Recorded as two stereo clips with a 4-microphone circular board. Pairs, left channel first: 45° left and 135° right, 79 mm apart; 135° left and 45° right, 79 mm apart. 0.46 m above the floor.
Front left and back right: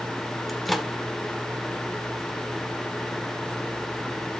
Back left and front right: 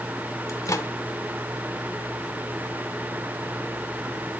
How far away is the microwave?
About 1.0 m.